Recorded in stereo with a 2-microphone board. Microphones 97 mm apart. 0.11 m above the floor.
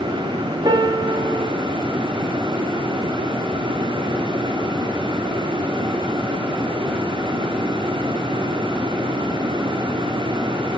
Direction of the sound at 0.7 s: 40° right (ahead or behind).